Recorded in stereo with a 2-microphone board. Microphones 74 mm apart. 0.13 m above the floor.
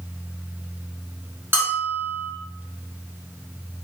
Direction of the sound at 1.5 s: 30° right (ahead or behind).